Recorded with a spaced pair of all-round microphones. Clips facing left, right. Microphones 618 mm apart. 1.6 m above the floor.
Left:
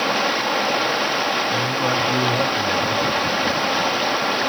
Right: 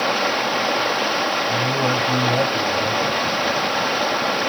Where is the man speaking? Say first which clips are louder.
Right 3 dB; 80° right, 6.5 m.